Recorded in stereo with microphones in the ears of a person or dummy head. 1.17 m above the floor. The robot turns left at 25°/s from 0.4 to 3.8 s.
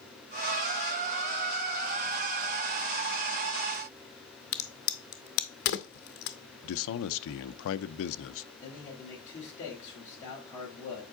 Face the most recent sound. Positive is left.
turn(degrees=25)  # may be behind; listen again after turning